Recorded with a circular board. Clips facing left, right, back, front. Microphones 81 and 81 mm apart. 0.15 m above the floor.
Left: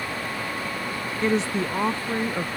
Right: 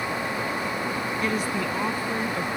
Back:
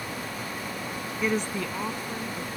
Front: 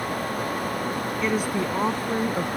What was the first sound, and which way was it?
A woman speaking, 95° left.